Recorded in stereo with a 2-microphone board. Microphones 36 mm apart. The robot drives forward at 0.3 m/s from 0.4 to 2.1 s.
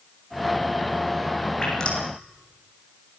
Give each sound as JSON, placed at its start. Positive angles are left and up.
{"t": 1.6, "sound": "dripping", "side_deg": 25, "distance_m": 8.0}